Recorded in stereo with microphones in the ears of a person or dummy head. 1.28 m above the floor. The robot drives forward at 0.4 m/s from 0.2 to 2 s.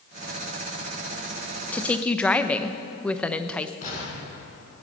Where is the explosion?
45° left (ahead or behind), 5.5 m.